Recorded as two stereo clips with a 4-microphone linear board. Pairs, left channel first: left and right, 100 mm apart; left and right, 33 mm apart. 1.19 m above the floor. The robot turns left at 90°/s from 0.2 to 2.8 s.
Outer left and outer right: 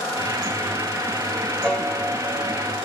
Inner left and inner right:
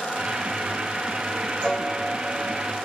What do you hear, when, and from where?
1.6 s a piano: 20° left, 0.6 m; by 2.9 s 90° right, 0.6 m